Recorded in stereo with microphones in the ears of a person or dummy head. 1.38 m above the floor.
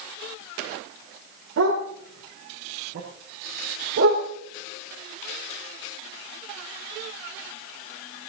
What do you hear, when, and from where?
1.6 s a dog barking: 60° right (ahead or behind), 6 m; by 4.2 s 45° right (ahead or behind), 7 m